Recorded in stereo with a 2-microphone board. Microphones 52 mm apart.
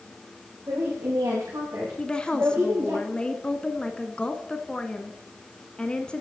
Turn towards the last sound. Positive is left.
turn(degrees=15)  # may be behind; listen again after turning